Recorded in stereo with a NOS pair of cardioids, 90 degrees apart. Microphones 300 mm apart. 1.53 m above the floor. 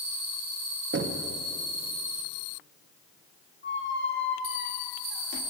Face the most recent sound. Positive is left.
turn(degrees=40)